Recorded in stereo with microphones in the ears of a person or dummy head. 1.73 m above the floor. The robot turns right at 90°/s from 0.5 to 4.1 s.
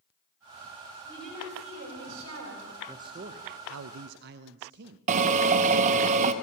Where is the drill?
40° right (ahead or behind), 0.8 m.